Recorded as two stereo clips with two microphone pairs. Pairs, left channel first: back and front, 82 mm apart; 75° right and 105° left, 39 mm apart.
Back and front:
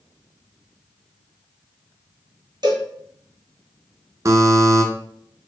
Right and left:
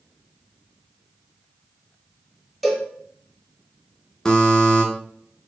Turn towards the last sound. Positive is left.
turn(degrees=-5)